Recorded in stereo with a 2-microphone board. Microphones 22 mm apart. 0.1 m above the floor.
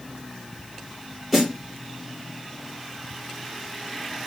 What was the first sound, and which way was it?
A snare drum, 5° right (ahead or behind).